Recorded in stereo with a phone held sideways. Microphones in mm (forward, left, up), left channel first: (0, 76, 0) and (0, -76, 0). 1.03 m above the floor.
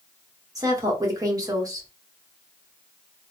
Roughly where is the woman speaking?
Right.